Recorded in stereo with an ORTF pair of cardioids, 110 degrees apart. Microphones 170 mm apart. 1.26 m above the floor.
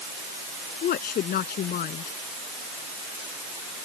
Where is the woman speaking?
65° left.